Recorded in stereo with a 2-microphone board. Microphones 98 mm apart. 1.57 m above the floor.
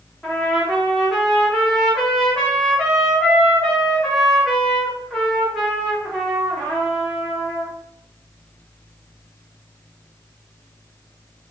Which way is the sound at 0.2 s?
5° left (ahead or behind).